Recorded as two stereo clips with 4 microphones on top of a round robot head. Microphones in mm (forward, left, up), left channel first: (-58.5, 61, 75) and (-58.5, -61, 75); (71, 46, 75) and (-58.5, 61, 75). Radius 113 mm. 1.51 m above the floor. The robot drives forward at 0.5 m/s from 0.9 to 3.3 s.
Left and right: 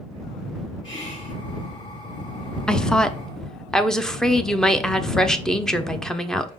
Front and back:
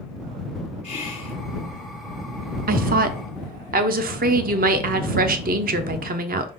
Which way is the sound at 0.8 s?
35° left.